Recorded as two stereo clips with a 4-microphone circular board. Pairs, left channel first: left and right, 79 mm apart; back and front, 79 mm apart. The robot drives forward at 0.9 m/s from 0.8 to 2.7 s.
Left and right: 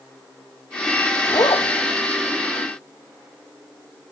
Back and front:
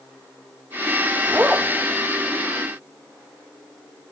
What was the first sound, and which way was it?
A zipper, 65° left.